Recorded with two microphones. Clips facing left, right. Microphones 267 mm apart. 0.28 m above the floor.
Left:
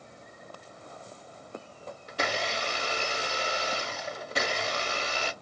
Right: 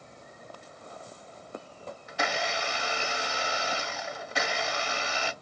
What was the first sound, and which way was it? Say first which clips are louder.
A blender: even; 40° left (ahead or behind).